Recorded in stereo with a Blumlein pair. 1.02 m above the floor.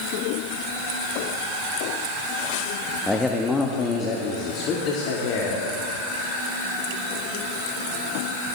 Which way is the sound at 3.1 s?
Straight ahead.